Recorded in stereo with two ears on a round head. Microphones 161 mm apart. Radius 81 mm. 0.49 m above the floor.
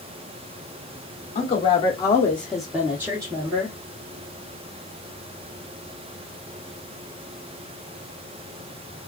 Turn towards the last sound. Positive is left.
turn(degrees=-30)  # may be behind; listen again after turning